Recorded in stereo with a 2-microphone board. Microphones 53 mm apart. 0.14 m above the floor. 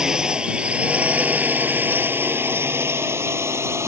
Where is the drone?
15° right (ahead or behind); by 3.9 s 65° right (ahead or behind).